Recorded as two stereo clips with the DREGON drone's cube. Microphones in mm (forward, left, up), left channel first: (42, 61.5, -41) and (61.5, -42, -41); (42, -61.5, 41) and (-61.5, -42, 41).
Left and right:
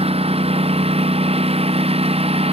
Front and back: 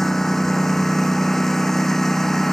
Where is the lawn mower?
95° right.